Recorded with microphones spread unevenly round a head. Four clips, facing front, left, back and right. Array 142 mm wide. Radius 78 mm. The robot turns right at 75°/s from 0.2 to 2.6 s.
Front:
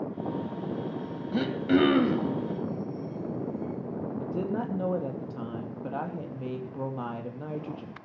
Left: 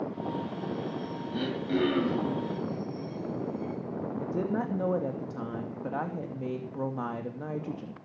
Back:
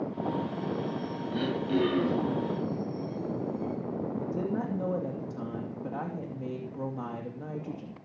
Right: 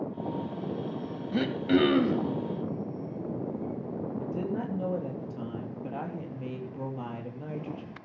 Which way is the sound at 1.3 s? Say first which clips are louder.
Right 5 dB, front 5 dB; 50° right.